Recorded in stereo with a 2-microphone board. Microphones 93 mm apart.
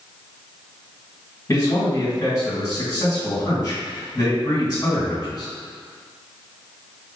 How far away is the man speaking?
About 1.7 m.